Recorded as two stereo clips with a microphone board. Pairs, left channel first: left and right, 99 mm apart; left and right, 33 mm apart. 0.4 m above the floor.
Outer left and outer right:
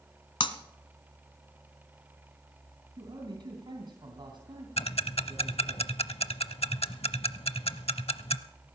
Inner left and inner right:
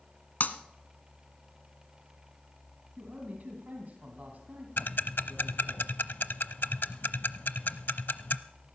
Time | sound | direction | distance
0.4 | breaking glass | 65° left (ahead or behind) | 1.2 m
3.0 | a man speaking | 55° right (ahead or behind) | 2.5 m
4.8 | ticking | 85° left | 0.6 m